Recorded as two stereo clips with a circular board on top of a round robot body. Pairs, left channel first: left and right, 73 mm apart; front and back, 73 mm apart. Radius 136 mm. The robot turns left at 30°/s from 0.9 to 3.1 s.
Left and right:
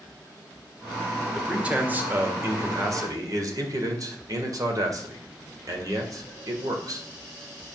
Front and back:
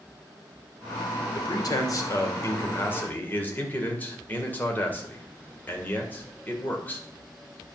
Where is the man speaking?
10° right, 2.5 m; by 7.1 s 65° right, 2.5 m.